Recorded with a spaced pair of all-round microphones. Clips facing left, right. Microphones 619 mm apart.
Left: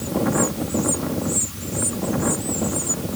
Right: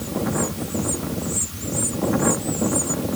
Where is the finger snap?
No finger snap in this recording.